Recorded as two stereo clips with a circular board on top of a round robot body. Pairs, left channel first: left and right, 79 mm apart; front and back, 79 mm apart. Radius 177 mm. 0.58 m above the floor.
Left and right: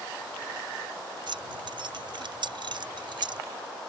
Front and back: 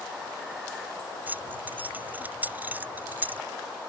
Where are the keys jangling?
110° right.